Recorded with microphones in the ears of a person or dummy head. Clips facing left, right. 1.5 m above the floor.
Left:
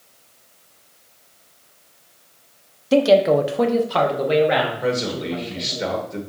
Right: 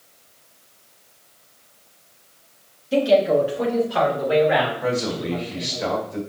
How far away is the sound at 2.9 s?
About 0.9 m.